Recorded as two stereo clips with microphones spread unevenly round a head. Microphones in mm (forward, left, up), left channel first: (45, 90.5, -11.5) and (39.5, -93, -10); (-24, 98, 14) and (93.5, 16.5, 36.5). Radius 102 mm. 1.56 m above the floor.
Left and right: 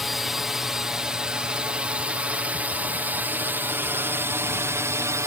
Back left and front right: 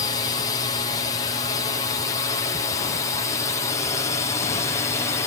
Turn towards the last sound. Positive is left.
turn(degrees=-165)